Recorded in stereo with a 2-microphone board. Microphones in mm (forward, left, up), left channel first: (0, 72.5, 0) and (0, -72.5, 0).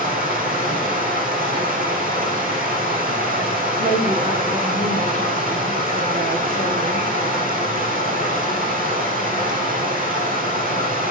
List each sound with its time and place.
0.0 s running water: 80° right, 5 m
3.8 s a woman speaking: 75° right (ahead or behind), 9 m